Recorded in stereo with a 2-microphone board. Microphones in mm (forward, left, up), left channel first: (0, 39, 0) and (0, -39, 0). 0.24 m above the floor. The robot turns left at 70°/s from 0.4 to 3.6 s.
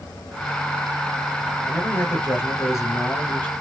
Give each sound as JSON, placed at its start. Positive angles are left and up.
{"t": 1.7, "sound": "a man speaking", "azimuth_deg": 160, "distance_m": 1.4}